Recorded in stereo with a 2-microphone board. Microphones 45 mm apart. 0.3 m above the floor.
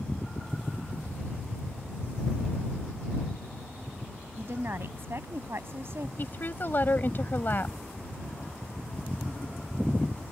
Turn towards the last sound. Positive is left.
turn(degrees=45)  # may be behind; listen again after turning